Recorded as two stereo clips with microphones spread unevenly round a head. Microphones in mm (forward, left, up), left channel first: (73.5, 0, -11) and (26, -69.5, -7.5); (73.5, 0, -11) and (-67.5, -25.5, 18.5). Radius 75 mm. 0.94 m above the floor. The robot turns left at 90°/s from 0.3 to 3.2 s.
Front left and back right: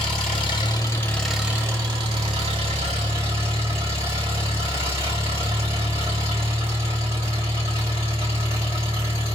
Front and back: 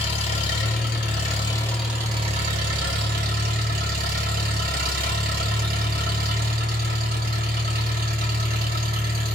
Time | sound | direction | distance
0.0 | an engine running | 60° left | 1.8 m